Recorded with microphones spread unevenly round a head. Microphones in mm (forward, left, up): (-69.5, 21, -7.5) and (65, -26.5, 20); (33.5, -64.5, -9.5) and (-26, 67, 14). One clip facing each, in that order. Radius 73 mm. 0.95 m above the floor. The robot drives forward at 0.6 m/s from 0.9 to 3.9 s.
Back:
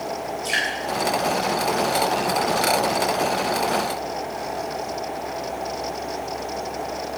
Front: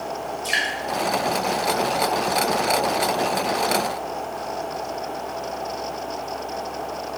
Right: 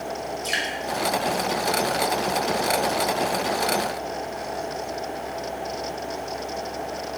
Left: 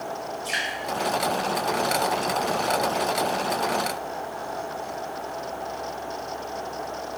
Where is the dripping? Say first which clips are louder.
Back 1 dB, right 2 dB; 85° right, 4 m.